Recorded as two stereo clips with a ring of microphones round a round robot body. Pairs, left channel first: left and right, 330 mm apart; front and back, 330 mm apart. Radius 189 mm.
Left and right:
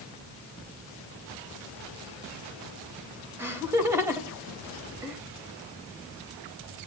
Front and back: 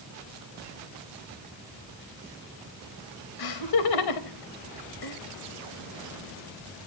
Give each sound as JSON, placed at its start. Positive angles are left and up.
{"t": 3.4, "sound": "laughter", "azimuth_deg": -5, "distance_m": 4.0}